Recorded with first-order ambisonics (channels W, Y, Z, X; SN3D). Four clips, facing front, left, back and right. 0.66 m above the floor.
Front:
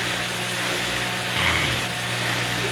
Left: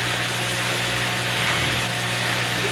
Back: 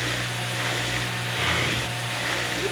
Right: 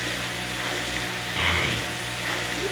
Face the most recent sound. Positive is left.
turn(degrees=-40)